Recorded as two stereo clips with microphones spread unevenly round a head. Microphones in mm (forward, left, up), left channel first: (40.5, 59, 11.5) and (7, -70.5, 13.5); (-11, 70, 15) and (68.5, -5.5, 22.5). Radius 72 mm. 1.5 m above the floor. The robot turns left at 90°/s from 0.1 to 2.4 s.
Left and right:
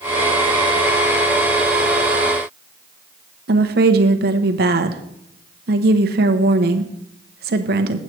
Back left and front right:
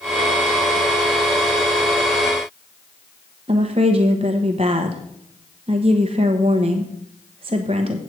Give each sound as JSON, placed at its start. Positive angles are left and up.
{"t": 3.5, "sound": "a woman speaking", "azimuth_deg": -100, "distance_m": 1.0}